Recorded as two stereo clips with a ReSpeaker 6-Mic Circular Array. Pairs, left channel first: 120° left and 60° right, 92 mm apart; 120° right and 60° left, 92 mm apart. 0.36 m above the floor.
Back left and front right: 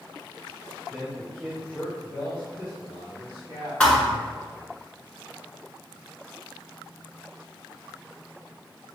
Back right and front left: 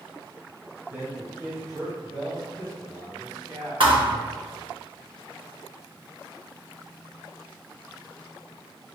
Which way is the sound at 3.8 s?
40° left.